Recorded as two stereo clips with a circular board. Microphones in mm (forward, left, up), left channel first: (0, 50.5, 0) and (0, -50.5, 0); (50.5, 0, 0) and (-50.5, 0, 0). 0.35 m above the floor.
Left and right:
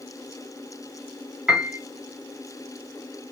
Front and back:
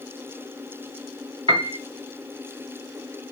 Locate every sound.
1.5 s a piano: 170° right, 2.5 m